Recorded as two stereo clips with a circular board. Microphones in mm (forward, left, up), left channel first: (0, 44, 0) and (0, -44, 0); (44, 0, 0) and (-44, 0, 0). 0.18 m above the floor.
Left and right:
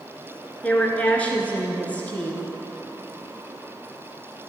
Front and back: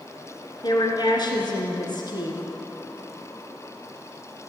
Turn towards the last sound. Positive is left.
turn(degrees=15)